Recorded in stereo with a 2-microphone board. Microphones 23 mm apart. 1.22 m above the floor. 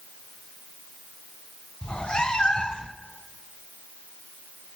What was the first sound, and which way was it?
A cat meowing, 50° left (ahead or behind).